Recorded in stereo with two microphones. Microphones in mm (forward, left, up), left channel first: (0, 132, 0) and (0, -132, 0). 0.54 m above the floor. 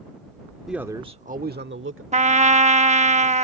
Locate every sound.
0.7 s a man speaking: centre (ahead or behind); by 2.0 s 50° right (ahead or behind)
2.1 s a trumpet: 25° right (ahead or behind)